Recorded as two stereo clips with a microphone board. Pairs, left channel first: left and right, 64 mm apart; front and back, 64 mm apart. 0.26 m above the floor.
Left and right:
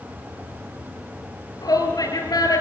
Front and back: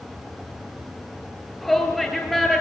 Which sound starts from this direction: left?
A shout, at 1.6 s.